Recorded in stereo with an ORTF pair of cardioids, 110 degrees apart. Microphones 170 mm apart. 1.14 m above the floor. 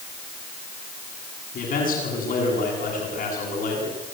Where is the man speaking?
55° left, 9 m.